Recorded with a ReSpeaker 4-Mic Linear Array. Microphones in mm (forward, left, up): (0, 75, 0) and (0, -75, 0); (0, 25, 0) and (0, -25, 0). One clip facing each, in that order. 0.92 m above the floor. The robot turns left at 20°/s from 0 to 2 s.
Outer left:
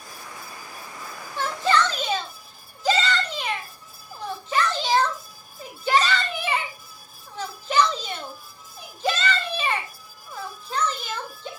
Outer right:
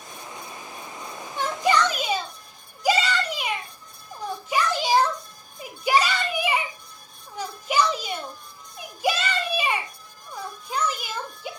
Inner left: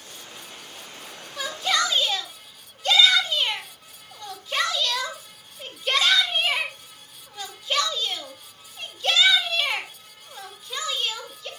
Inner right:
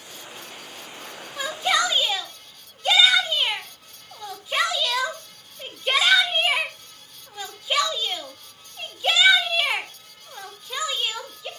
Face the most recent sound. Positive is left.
turn(degrees=-10)  # may be behind; listen again after turning